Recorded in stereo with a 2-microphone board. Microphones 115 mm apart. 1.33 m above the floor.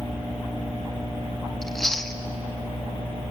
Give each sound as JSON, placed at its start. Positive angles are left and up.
{"t": 1.6, "sound": "chewing", "side_deg": 0, "distance_m": 1.3}